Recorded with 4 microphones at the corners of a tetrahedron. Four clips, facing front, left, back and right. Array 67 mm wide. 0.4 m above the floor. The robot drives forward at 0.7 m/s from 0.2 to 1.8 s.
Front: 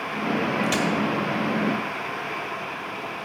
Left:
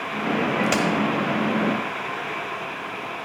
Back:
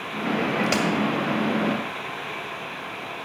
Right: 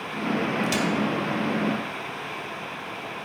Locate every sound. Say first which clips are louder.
0.6 s a crack: left 4 dB, back 1 dB; 120° left, 1.8 m; by 0.8 s 125° left, 1.8 m